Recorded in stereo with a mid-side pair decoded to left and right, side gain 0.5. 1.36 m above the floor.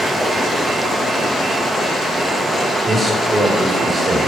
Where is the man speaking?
15° right, 4.5 m.